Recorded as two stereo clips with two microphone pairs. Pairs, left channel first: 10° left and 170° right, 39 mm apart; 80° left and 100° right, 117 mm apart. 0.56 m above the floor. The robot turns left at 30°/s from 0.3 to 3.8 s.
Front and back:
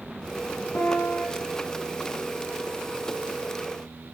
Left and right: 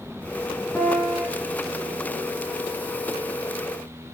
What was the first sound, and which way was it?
A piano, straight ahead.